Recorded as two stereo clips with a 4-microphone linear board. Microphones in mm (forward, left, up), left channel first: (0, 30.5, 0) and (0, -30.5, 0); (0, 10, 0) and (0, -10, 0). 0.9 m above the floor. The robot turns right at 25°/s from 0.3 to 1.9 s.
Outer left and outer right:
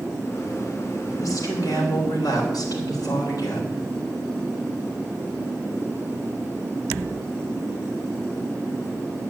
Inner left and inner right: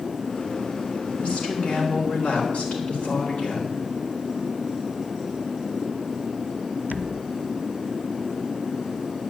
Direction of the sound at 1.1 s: 60° left (ahead or behind).